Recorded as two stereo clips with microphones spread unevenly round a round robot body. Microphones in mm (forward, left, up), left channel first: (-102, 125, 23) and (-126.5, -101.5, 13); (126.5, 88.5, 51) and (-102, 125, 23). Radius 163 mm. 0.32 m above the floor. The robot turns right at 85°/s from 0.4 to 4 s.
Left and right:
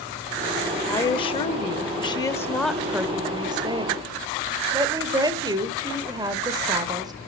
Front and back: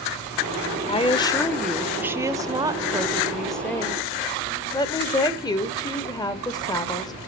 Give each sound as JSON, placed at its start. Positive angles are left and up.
{"t": 0.9, "sound": "a woman speaking", "azimuth_deg": 20, "distance_m": 0.8}